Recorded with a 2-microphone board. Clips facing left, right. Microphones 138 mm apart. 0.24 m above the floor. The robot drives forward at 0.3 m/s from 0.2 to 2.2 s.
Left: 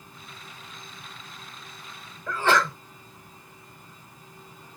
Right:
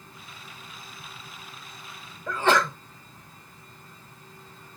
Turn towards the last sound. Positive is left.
turn(degrees=-20)  # may be behind; listen again after turning